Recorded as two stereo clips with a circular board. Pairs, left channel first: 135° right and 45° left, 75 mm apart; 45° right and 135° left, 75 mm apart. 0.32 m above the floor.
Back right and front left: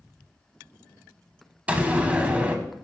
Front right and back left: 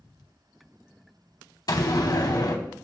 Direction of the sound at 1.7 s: 25° right.